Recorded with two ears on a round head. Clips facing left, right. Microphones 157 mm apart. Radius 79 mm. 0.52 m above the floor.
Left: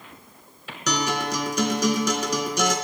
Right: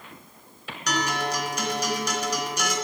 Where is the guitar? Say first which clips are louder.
Left 2 dB; 85° left, 2.5 m.